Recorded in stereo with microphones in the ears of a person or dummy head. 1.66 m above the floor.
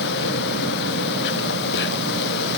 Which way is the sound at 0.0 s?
60° left (ahead or behind).